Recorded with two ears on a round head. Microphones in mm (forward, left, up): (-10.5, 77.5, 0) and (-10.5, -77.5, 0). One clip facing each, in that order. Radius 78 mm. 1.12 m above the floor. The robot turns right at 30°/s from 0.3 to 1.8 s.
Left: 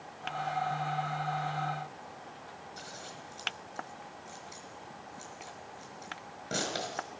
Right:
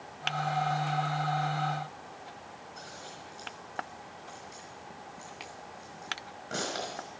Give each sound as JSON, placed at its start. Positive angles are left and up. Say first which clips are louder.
{"t": 2.8, "sound": "scissors", "louder": "even", "side_deg": 35, "distance_m": 5.0}